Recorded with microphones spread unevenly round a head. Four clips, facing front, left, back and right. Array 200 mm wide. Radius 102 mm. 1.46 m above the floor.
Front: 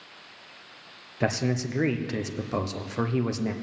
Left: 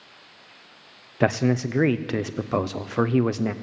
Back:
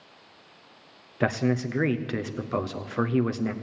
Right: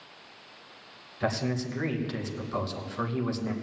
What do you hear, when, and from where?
1.2 s a man speaking: 95° left, 0.6 m